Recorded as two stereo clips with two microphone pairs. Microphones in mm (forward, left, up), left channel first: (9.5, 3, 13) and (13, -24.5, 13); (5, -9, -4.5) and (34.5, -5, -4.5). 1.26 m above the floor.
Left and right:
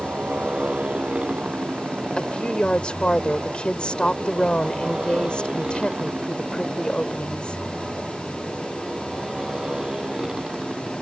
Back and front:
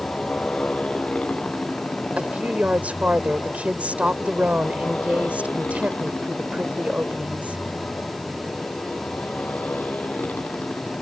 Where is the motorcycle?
115° right; by 11.0 s 150° right.